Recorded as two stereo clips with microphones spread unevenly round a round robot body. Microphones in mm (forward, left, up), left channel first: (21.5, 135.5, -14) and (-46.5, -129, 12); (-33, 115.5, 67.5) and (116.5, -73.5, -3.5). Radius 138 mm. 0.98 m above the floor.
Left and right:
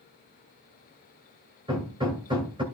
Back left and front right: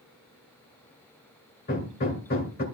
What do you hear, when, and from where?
1.7 s hammering: 175° right, 2 m